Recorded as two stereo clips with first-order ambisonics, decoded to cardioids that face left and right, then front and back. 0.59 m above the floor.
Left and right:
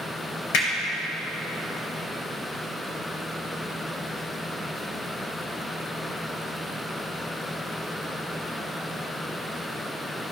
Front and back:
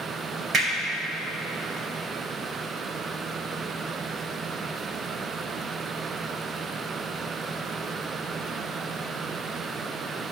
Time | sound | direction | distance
0.5 | hammering | 110° left | 2.5 m